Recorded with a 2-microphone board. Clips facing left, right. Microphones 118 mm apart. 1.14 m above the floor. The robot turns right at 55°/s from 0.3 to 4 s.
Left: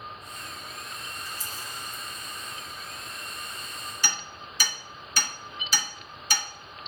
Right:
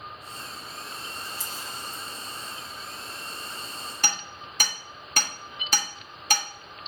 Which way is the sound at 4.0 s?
55° right (ahead or behind).